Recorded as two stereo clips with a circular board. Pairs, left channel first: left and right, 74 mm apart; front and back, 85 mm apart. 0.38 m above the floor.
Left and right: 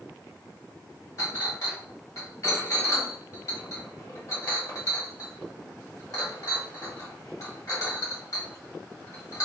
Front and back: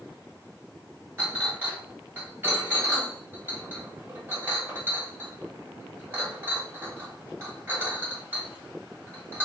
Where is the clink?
120° left, 1.2 m.